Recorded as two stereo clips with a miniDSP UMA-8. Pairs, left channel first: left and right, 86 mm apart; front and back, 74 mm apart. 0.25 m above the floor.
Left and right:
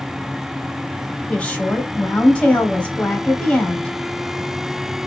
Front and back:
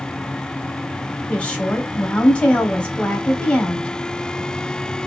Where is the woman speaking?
45° left, 1.1 m.